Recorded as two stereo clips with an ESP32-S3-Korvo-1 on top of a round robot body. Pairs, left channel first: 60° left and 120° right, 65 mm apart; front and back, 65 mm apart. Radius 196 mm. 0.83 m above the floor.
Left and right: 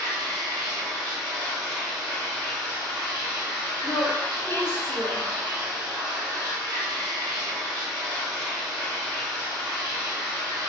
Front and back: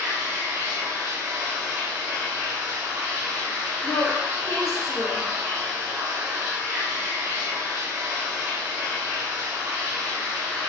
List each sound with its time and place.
0.0 s running water: 115° right, 0.7 m
3.8 s a woman speaking: 20° left, 1.1 m